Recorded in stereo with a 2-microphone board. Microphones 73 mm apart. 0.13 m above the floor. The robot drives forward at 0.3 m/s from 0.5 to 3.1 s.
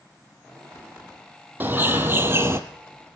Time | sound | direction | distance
1.6 | a bird | 25° right (ahead or behind) | 1.1 m